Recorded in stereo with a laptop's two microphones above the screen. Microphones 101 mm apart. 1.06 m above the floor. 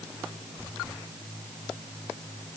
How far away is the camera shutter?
No camera shutter in this recording.